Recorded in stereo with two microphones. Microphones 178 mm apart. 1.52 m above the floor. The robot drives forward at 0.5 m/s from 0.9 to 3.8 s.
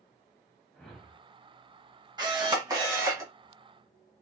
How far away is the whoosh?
About 0.9 m.